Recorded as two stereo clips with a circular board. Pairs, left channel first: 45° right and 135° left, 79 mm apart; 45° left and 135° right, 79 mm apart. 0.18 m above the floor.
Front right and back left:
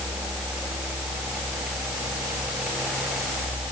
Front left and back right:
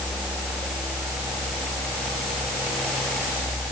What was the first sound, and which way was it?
Only background noise.